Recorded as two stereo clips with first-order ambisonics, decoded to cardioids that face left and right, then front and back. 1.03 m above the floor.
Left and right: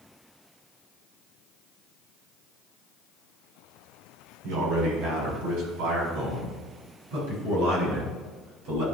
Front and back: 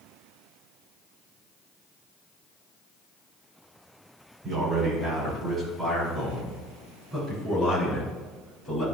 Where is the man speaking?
115° right, 4 m; by 8.8 s 85° right, 8 m.